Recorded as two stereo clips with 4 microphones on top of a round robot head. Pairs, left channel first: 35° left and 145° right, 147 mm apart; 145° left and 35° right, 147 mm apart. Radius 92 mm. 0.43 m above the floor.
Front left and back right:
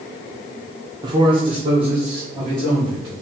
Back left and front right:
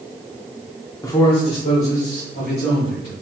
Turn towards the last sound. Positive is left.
turn(degrees=160)